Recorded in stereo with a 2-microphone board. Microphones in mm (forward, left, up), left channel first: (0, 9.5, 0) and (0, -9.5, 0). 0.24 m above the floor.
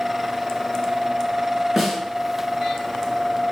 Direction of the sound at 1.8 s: 10° right (ahead or behind).